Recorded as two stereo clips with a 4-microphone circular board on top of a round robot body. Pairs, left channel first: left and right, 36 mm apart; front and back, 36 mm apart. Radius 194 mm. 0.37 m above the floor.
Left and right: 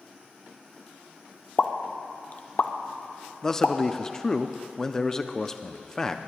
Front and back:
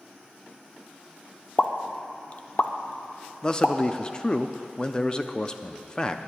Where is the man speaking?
35° left, 0.8 m.